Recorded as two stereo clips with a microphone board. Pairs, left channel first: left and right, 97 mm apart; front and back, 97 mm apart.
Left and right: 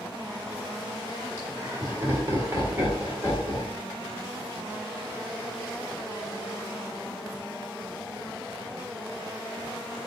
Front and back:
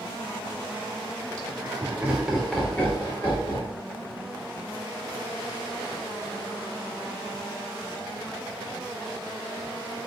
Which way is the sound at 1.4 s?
140° right.